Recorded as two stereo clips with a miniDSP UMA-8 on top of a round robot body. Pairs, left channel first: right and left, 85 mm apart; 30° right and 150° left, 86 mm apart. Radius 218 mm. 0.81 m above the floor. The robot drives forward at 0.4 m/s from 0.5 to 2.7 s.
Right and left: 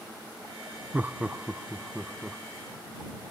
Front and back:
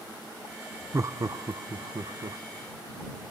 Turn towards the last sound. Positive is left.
turn(degrees=170)